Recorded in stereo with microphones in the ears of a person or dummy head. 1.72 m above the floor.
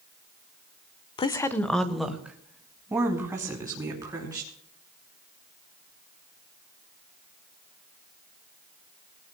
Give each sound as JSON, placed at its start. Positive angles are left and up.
{"t": 1.2, "sound": "a woman speaking", "side_deg": 30, "distance_m": 0.9}